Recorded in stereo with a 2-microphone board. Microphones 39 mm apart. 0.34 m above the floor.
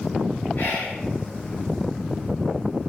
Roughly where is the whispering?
Left.